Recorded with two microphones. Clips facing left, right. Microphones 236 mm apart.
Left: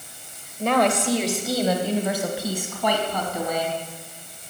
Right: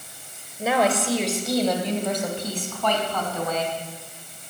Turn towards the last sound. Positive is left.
turn(degrees=15)  # may be behind; listen again after turning